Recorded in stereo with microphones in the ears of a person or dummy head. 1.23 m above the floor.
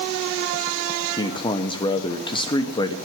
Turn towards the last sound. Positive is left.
turn(degrees=20)  # may be behind; listen again after turning